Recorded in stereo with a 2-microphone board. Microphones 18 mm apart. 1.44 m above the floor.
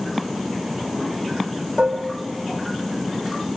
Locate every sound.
1.8 s dishes clattering: 70° right (ahead or behind), 4 m